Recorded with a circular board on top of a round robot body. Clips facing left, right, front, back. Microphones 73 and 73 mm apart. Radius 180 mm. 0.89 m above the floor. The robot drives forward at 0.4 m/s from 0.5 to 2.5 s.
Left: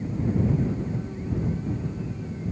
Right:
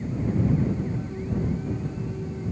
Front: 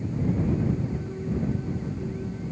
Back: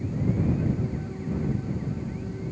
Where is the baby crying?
No baby crying in this recording.